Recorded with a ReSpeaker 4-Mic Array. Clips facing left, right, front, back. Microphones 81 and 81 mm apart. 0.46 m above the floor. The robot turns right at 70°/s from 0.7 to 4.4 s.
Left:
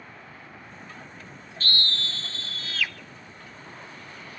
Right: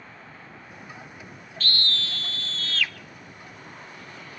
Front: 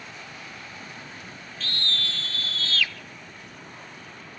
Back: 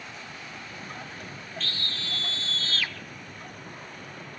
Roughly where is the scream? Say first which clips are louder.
Even, front 6 dB; left.